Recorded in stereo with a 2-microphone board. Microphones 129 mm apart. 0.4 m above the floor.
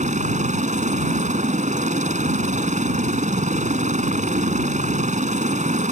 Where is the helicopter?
70° right (ahead or behind).